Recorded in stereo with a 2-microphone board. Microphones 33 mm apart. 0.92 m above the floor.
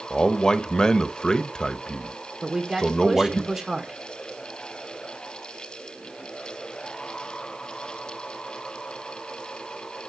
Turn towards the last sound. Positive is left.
turn(degrees=-20)  # may be behind; listen again after turning